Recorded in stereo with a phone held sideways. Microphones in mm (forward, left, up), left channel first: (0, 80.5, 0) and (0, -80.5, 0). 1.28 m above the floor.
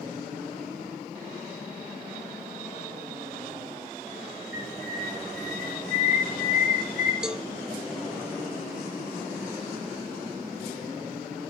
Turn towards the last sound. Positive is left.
turn(degrees=-5)  # may be behind; listen again after turning